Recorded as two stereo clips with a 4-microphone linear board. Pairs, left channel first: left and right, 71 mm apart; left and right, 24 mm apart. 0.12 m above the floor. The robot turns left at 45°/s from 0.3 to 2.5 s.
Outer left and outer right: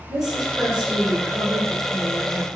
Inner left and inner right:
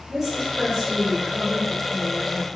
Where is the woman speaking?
10° right (ahead or behind), 1.2 m; by 2.6 s 15° right (ahead or behind), 1.2 m.